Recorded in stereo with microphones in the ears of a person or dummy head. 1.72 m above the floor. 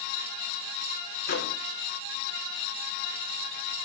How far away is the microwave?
About 1.4 m.